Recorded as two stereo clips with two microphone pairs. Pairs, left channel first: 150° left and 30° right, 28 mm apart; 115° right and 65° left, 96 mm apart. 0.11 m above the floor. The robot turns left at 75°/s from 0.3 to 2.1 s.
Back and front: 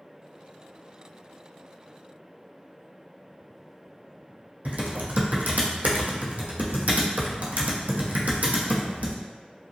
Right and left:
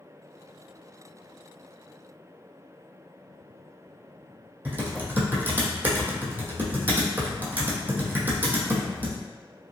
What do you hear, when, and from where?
4.7 s typing on a keyboard: 5° right, 0.6 m